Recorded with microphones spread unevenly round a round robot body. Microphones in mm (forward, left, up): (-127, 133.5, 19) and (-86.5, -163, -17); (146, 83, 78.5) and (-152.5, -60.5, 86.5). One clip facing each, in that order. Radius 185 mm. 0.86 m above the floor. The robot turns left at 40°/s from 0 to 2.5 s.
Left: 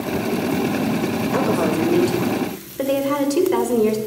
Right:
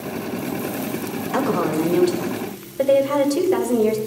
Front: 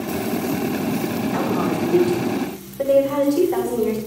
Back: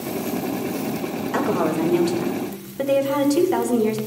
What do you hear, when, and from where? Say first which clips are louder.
1.3 s a woman speaking: right 1 dB, back 3 dB; 150° right, 3.5 m; by 4.0 s 165° left, 3.5 m